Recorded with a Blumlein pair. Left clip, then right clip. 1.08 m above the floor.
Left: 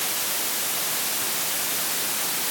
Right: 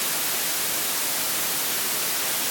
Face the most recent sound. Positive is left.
No sound to turn to.